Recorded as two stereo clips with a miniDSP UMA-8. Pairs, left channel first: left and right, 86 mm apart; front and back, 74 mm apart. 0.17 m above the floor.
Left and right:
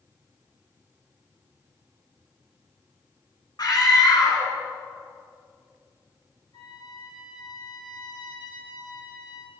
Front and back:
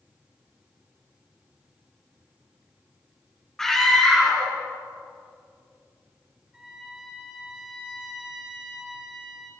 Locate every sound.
3.6 s a scream: 85° left, 1.5 m
6.5 s a trumpet: 100° left, 3 m